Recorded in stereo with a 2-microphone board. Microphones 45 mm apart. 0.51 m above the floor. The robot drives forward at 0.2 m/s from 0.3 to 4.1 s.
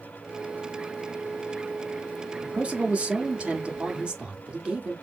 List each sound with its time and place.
2.4 s a man speaking: 30° right (ahead or behind), 1.1 m; by 4.9 s 25° right (ahead or behind), 1.3 m